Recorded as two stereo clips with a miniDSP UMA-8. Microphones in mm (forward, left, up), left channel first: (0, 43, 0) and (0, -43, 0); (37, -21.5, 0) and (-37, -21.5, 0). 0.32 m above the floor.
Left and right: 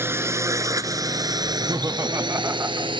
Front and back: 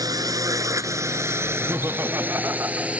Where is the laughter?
135° right.